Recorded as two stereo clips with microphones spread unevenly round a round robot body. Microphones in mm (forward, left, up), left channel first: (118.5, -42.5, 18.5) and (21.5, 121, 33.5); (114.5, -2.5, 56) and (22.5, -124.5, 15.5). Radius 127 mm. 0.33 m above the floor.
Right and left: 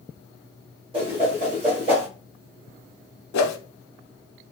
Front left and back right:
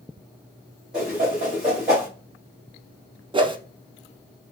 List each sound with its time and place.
0.9 s a whoosh: 170° left, 1.8 m
3.3 s a whoosh: 65° right, 0.6 m